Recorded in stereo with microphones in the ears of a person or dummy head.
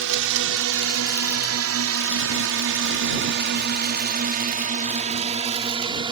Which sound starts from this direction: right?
A drone, at 0.0 s.